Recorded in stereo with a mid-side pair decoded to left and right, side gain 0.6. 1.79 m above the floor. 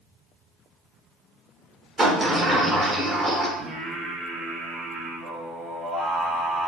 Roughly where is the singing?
Ahead right.